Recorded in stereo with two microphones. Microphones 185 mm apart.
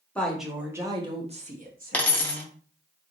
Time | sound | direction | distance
0.1 | a woman speaking | 5° left (ahead or behind) | 1.0 m
1.9 | a dropped coin | 10° left (ahead or behind) | 0.8 m